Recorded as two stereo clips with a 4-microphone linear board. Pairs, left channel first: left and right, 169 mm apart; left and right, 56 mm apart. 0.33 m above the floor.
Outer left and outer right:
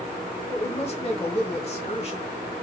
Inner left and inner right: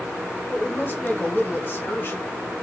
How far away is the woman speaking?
About 1.2 m.